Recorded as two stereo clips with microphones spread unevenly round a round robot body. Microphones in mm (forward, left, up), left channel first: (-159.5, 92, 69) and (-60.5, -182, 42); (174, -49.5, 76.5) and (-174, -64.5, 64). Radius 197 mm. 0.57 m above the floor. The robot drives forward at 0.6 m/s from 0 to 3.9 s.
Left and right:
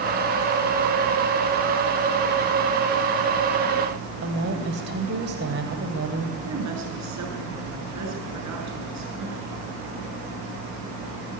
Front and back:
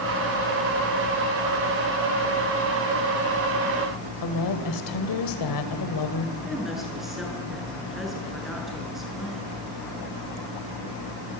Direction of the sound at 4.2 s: 15° right.